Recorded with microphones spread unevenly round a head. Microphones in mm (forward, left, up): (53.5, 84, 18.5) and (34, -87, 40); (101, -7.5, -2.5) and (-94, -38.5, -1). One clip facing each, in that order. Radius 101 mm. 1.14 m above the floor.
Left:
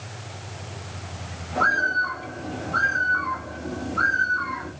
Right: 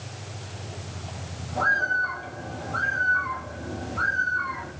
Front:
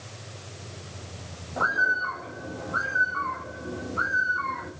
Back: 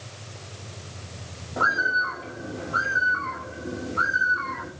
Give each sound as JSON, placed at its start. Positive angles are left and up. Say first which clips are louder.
{"t": 1.6, "sound": "a bird", "louder": "left 3 dB, back 2 dB", "azimuth_deg": 135, "distance_m": 2.5}